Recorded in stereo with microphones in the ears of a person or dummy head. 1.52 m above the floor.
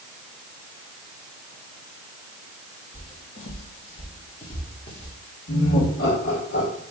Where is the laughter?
80° left, 2.0 m.